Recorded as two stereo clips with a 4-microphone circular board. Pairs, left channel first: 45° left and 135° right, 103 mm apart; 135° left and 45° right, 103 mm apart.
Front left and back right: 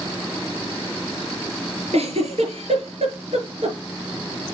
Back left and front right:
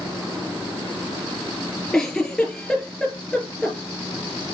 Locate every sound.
1.9 s a giggle: 135° right, 4 m